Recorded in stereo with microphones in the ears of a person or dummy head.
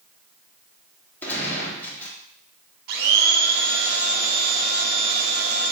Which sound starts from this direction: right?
A blender, at 2.9 s.